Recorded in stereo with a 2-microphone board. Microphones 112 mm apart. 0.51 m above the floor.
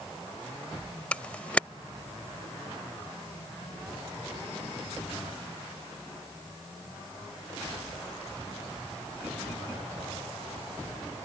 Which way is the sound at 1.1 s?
10° left (ahead or behind).